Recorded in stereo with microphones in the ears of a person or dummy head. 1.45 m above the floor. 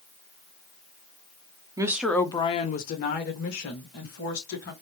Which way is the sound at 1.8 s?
15° right (ahead or behind).